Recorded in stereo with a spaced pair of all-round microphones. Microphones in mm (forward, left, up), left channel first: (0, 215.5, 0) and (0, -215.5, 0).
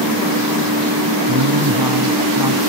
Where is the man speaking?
55° right (ahead or behind).